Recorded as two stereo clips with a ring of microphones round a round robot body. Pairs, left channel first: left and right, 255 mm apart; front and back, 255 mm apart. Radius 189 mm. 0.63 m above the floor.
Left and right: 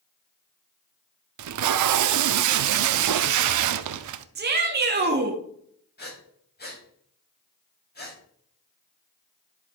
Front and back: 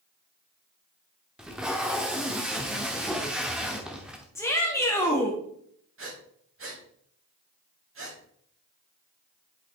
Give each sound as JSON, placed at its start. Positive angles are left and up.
{"t": 1.4, "sound": "tape being pulled", "azimuth_deg": -90, "distance_m": 0.6}
{"t": 4.3, "sound": "a shout", "azimuth_deg": -75, "distance_m": 1.3}
{"t": 6.0, "sound": "breathing", "azimuth_deg": 140, "distance_m": 4.5}